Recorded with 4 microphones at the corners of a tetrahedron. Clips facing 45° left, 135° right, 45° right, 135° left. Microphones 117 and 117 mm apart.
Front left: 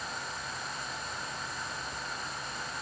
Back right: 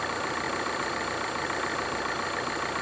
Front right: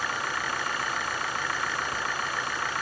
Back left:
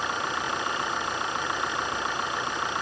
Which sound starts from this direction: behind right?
An engine running, at 0.0 s.